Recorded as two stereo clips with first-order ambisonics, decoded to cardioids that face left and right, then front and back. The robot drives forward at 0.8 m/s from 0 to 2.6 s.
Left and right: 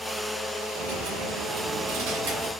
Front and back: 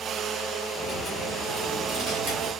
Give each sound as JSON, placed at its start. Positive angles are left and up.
{"t": 0.8, "sound": "a dropped coin", "azimuth_deg": -75, "distance_m": 1.8}